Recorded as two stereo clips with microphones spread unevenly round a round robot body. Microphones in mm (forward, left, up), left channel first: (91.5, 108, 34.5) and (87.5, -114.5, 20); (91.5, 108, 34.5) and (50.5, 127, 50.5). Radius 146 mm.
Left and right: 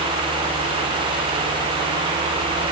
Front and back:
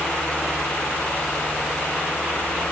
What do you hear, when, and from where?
Only background noise.